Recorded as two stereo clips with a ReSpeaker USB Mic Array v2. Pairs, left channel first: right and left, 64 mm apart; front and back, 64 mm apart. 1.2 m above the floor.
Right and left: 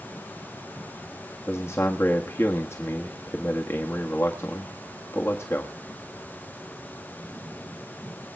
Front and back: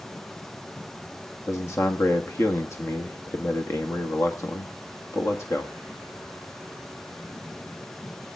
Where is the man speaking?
45° right, 1.4 m.